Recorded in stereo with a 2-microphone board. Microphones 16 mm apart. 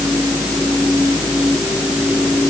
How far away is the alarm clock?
I don't hear an alarm clock.